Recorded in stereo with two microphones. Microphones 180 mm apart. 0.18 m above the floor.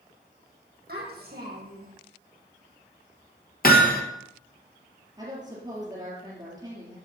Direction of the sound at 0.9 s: 60° right (ahead or behind).